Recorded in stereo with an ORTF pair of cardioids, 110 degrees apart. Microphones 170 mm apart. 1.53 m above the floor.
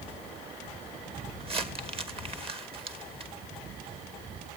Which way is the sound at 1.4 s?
35° right.